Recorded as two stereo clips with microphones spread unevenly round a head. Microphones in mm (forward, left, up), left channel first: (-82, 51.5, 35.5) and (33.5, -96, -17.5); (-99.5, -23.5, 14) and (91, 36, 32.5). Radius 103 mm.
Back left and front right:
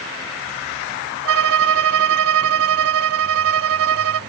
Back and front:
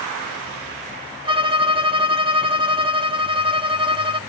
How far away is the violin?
About 0.6 m.